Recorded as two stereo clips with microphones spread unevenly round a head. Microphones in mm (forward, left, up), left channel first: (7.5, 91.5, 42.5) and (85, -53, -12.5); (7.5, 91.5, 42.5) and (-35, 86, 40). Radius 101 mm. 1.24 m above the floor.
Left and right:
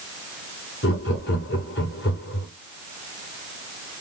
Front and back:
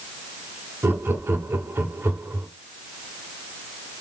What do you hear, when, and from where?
0.8 s laughter: 165° left, 1.5 m